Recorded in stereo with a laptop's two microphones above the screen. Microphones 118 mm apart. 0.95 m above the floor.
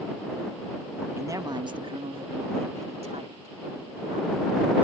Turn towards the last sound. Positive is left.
turn(degrees=-65)  # may be behind; listen again after turning